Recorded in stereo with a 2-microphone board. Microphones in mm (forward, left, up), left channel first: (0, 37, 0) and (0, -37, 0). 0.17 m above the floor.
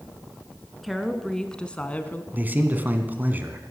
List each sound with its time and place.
0.8 s a woman speaking: centre (ahead or behind), 1.7 m; by 2.2 s 25° left (ahead or behind), 1.2 m
2.3 s a man speaking: 25° right (ahead or behind), 1.6 m